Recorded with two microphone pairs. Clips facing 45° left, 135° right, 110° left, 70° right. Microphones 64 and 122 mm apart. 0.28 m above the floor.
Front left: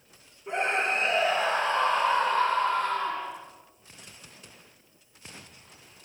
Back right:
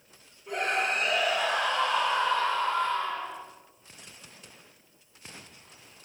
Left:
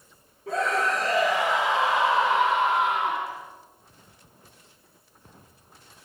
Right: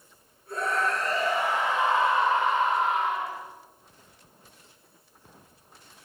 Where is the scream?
110° left, 9.5 m; by 3.3 s 85° left, 9.5 m.